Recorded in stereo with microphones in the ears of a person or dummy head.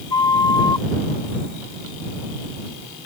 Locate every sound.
0.1 s a flute: 20° left (ahead or behind)